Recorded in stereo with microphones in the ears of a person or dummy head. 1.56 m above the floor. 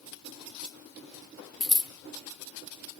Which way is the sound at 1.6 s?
5° left (ahead or behind).